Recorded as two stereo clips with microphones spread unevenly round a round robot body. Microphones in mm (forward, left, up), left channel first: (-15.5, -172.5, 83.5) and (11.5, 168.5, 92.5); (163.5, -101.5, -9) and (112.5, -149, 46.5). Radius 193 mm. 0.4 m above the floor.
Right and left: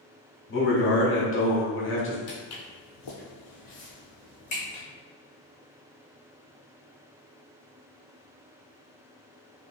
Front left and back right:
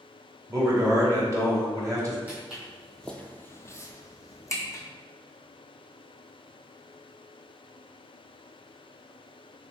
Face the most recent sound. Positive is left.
turn(degrees=-20)